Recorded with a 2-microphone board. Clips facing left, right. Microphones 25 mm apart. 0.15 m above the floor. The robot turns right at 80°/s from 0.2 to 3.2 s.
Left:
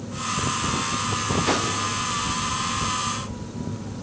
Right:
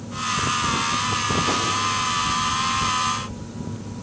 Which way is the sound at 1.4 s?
10° left (ahead or behind).